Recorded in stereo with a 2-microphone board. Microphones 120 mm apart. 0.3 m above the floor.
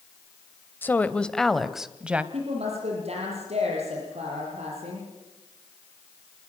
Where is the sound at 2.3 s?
60° right (ahead or behind), 8 m.